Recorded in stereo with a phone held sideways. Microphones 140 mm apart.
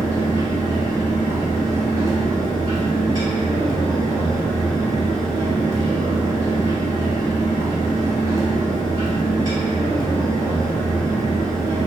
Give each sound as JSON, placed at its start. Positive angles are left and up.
{"t": 0.0, "sound": "a fan", "side_deg": -25, "distance_m": 0.9}